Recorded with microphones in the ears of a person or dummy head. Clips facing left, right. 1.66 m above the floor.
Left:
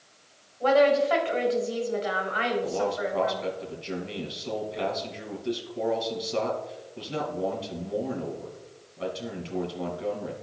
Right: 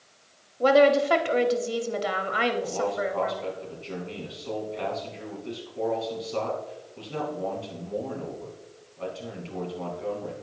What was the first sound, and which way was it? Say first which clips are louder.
A woman speaking: right 2 dB; 50° right (ahead or behind).